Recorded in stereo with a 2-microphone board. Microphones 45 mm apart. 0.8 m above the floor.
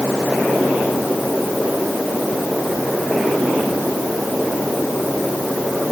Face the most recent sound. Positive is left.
No sound to turn to.